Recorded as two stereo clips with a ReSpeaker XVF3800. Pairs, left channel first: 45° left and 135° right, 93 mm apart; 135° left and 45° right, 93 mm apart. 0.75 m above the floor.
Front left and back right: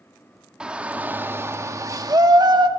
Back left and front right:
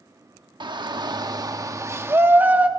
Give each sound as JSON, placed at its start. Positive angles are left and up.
{"t": 0.6, "sound": "a shout", "azimuth_deg": -55, "distance_m": 1.2}